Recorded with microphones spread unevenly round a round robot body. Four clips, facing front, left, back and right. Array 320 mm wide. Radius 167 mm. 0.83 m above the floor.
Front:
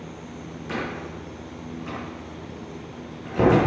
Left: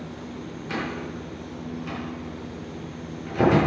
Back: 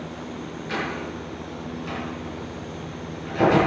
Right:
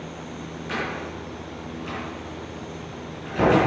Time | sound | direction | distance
0.7 | a door slam | 15° right | 7 m